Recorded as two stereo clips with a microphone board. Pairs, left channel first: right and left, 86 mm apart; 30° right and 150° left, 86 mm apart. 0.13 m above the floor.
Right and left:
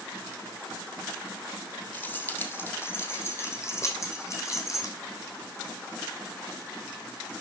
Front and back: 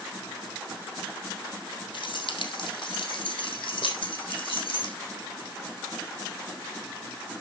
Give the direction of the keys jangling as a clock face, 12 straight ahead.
1 o'clock.